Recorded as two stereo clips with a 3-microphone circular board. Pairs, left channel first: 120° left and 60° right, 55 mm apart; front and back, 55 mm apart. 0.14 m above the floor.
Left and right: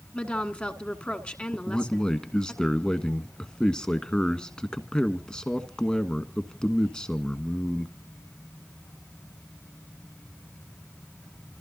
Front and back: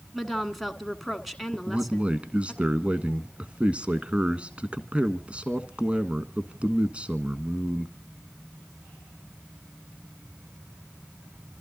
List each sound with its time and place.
0.1 s a woman speaking: 90° left, 1.3 m
1.5 s a man speaking: 170° left, 1.2 m